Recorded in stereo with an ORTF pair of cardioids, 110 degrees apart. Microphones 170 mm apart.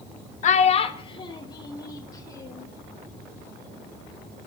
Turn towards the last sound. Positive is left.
turn(degrees=20)